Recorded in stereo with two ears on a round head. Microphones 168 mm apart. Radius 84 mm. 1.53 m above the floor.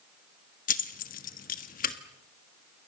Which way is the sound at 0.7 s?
45° left (ahead or behind).